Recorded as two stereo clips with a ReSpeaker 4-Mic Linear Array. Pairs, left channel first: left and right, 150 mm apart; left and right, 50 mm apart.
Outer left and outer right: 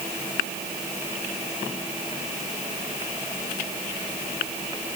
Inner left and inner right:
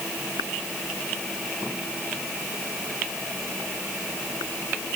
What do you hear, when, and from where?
Only background noise.